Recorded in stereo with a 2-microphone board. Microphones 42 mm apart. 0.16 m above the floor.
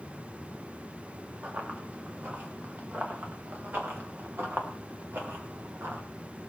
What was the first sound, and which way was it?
Running footsteps, 50° right (ahead or behind).